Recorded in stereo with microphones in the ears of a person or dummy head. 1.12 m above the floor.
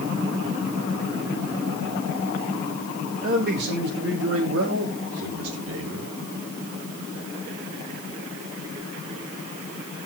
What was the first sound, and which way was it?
A man speaking, 45° right (ahead or behind).